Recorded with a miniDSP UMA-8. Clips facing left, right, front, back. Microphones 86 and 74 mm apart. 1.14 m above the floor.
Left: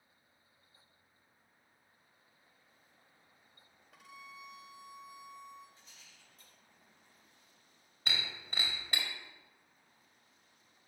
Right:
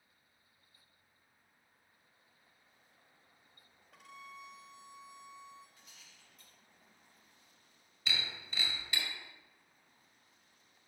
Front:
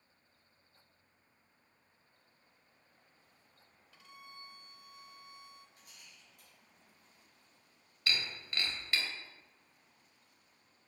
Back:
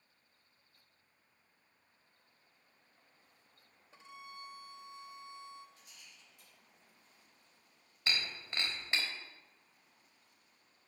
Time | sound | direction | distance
3.9 | a violin | 175° left | 0.9 m
5.8 | a rattle | 35° left | 3.5 m
8.1 | breaking glass | 120° left | 1.7 m